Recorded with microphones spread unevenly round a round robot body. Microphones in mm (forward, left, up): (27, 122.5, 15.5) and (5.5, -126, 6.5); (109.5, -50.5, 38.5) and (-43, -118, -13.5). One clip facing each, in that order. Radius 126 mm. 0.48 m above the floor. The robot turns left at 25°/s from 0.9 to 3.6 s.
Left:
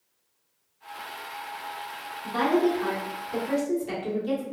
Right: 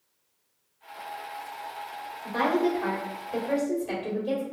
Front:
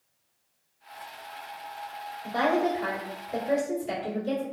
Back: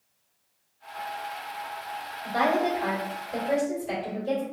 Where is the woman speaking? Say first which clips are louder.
Left 2 dB, even; 105° left, 1.3 m; by 4.4 s 70° left, 1.3 m.